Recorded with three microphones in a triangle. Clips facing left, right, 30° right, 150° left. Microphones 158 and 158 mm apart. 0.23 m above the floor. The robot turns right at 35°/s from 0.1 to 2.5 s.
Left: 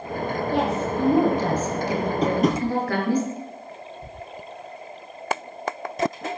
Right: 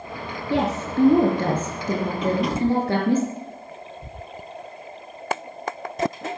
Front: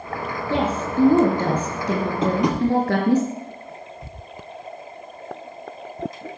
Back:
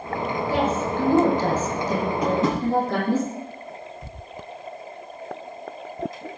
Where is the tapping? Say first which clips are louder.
Left 3 dB, front 2 dB; 35° left, 2.5 m; by 2.6 s 45° left, 2.5 m.